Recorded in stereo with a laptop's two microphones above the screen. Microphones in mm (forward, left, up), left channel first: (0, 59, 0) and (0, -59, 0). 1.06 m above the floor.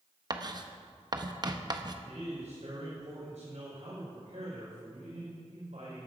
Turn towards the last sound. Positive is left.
turn(degrees=-80)